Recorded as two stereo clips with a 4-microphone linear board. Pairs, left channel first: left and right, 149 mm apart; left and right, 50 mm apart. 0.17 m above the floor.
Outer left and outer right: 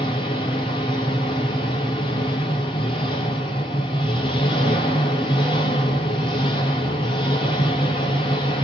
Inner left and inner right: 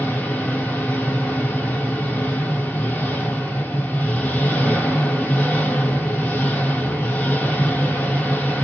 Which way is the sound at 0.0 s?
35° left (ahead or behind).